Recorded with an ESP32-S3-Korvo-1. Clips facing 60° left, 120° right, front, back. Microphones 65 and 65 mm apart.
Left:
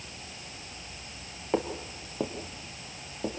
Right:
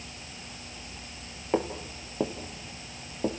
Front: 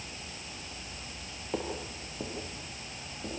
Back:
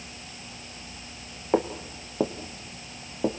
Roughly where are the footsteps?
Behind left.